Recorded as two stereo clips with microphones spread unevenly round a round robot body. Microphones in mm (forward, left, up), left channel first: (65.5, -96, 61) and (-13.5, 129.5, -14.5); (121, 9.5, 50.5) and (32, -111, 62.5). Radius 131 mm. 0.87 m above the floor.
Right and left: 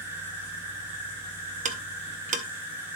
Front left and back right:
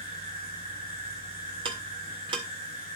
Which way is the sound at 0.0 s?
70° left.